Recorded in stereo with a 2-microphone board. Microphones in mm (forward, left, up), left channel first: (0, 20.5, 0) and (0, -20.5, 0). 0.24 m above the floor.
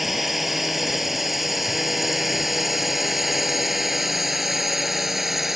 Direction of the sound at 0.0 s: 5° right (ahead or behind).